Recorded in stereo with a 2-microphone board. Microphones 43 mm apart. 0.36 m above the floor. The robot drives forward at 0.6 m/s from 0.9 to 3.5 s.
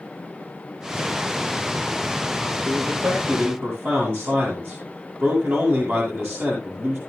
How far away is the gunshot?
No gunshot in this recording.